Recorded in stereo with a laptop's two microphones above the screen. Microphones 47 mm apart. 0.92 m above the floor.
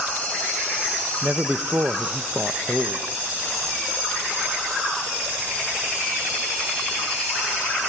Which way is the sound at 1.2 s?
40° right (ahead or behind).